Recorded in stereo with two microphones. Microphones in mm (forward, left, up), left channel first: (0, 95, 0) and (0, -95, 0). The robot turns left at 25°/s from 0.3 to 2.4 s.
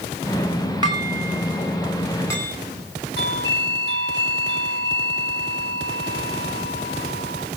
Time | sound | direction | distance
0.8 | dishes clattering | 25° right (ahead or behind) | 7 m
3.2 | a doorbell | 60° left (ahead or behind) | 3.5 m